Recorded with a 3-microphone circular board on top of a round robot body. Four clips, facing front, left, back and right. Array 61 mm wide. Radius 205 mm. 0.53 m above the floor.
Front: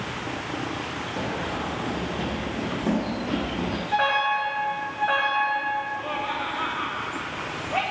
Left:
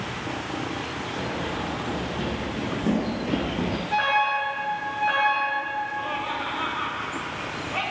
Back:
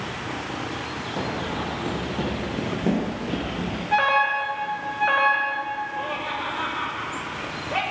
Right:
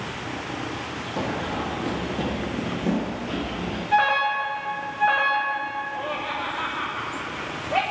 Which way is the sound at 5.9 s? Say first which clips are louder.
Even, even; 140° right.